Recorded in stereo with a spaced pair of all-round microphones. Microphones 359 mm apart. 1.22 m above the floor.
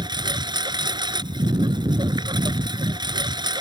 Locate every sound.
0.0 s a lawn mower: 10° right (ahead or behind)